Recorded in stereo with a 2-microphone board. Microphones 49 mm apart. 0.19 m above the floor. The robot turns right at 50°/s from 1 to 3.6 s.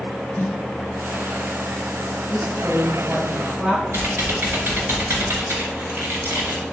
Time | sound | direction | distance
0.4 | a snare drum | 55° left (ahead or behind) | 4 m
2.3 | a woman speaking | 170° left | 4 m
3.9 | typing on a keyboard | 55° right (ahead or behind) | 2.5 m